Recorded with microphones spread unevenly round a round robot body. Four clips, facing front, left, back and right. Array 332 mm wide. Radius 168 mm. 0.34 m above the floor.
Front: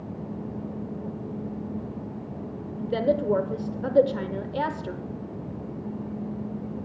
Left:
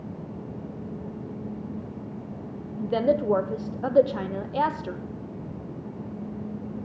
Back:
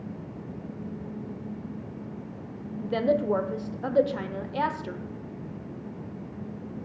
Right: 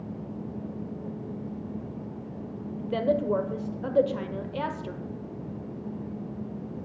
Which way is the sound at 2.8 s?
45° left.